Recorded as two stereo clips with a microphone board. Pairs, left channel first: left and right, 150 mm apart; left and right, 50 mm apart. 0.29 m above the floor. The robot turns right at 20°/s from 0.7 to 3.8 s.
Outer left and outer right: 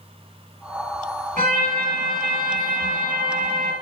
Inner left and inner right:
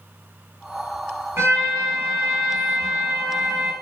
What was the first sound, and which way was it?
A trumpet, 115° right.